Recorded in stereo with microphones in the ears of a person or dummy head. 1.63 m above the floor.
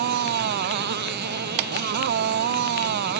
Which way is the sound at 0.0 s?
55° right (ahead or behind).